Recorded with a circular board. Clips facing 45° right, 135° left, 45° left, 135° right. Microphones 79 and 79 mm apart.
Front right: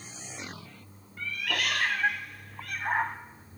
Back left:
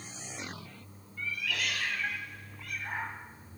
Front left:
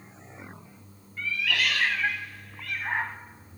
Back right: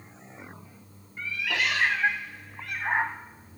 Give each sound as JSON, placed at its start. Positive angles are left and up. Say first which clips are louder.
{"t": 1.2, "sound": "a cat meowing", "louder": "front right 3 dB, front left 1 dB", "azimuth_deg": -70, "distance_m": 0.7}